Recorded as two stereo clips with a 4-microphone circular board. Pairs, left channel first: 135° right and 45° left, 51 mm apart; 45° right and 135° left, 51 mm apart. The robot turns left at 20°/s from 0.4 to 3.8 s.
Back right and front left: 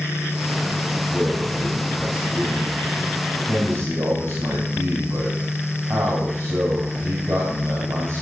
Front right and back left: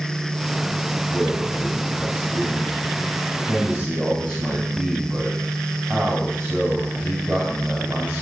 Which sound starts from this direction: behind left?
A man speaking, at 1.1 s.